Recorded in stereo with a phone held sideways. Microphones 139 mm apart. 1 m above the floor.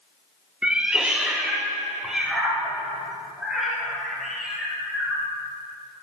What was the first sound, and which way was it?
A cat meowing, 10° right (ahead or behind).